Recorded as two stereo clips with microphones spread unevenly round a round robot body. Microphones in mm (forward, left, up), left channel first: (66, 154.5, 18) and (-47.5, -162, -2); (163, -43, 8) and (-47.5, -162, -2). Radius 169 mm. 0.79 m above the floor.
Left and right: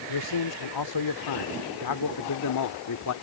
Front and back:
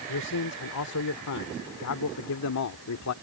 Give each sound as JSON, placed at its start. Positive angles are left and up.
{"t": 0.1, "sound": "a man speaking", "azimuth_deg": 60}